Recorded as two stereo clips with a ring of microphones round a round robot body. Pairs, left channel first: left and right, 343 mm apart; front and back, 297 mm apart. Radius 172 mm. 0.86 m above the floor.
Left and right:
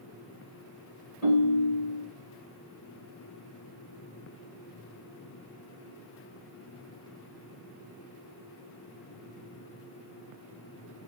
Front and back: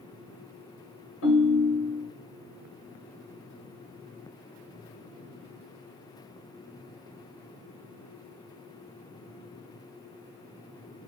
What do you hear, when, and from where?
1.2 s a ringtone: 40° left, 2.5 m